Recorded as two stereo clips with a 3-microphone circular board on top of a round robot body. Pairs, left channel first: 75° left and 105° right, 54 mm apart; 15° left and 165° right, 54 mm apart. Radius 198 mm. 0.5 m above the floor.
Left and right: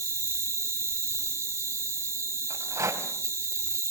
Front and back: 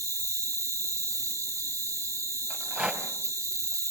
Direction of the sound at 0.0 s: 135° right.